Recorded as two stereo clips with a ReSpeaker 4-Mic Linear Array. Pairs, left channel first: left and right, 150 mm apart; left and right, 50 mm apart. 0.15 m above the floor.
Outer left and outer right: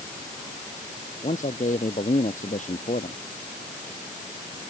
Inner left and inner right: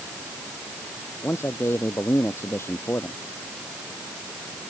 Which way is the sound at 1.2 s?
55° left (ahead or behind).